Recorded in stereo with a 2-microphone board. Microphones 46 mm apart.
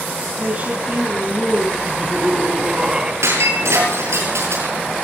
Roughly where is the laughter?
Right.